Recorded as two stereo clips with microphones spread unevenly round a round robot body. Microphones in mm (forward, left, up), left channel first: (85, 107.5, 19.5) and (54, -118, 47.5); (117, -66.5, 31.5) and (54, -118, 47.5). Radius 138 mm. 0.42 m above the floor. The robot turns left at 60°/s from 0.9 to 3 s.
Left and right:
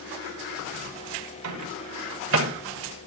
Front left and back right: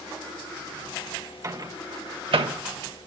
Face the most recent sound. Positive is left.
turn(degrees=180)